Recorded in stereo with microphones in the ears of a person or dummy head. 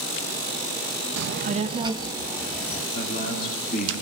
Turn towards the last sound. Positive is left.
turn(degrees=40)  # may be behind; listen again after turning